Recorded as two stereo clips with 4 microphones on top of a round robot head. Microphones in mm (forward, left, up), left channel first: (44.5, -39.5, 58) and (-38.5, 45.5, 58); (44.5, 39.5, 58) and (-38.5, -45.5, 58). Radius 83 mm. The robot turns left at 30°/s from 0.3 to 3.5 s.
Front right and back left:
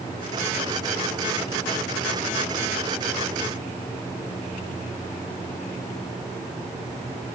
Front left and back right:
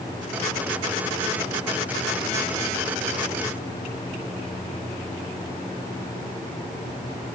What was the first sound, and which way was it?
Only background noise.